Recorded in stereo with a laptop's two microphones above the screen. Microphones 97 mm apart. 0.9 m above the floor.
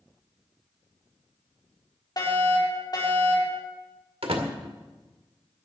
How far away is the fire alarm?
About 4 m.